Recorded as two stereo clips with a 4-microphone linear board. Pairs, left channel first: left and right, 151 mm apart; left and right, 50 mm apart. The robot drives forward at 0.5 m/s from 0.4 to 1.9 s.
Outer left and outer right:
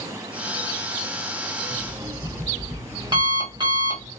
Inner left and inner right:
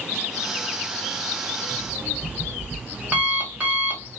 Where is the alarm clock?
35° right (ahead or behind), 1.1 m; by 4.1 s 30° right (ahead or behind), 1.2 m.